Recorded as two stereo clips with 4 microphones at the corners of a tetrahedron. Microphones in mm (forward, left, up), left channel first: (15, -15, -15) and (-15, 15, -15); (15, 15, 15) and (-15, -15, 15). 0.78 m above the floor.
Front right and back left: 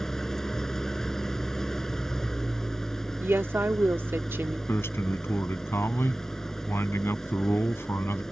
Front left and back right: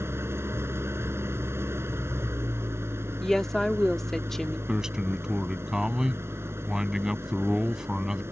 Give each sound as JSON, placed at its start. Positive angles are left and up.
{"t": 0.0, "sound": "an engine running", "azimuth_deg": -125}
{"t": 3.2, "sound": "a woman speaking", "azimuth_deg": 125}
{"t": 4.7, "sound": "a man speaking", "azimuth_deg": -55}